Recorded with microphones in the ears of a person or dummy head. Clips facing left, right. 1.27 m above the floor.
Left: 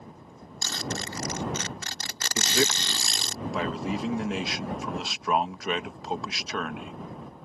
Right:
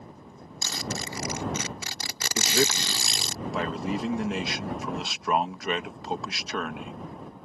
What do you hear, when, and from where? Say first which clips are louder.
0.6 s a zipper: even; 10° right (ahead or behind)
2.4 s a man speaking: right 1 dB; centre (ahead or behind)